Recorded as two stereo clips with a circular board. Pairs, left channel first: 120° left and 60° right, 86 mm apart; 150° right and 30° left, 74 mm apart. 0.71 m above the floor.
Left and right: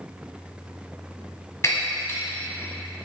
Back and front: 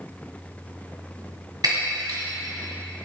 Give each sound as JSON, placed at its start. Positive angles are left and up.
{"t": 1.6, "sound": "breaking glass", "azimuth_deg": 65, "distance_m": 1.6}